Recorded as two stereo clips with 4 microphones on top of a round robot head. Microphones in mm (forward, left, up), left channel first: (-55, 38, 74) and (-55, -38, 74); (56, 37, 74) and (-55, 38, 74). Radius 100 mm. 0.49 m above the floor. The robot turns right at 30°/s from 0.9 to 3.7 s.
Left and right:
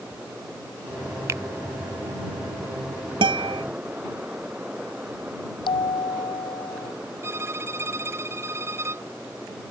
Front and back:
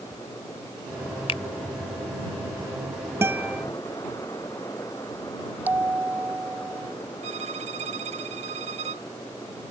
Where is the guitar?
105° right; by 3.6 s 95° right.